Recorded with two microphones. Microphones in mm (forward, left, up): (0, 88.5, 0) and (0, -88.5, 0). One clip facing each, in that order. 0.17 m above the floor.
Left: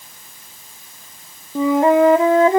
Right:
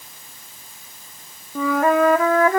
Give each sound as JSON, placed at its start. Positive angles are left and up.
{"t": 1.6, "sound": "a flute", "side_deg": 25}